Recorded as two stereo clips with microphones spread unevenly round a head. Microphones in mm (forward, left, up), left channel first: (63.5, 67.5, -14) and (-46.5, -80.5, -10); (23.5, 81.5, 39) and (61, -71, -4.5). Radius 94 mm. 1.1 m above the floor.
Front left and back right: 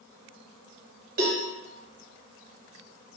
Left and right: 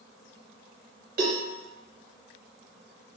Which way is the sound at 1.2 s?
85° right.